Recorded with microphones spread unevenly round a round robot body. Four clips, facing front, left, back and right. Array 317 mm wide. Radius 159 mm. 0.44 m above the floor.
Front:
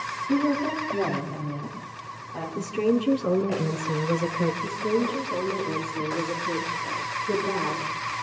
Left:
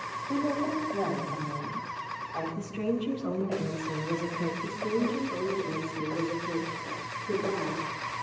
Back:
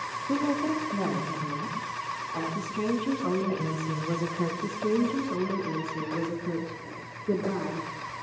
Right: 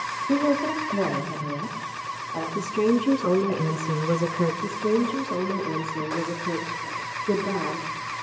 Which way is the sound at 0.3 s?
110° right.